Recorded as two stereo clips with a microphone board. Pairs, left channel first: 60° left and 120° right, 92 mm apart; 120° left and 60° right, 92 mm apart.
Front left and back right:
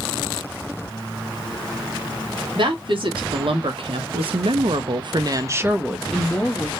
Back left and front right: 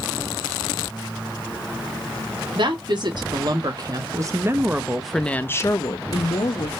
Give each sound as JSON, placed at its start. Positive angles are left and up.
{"t": 2.5, "sound": "a woman speaking", "azimuth_deg": -90, "distance_m": 1.5}